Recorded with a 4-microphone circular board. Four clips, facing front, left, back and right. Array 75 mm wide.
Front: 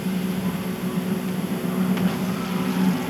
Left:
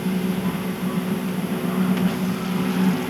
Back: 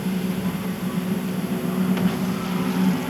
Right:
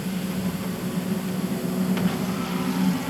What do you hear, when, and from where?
Only background noise.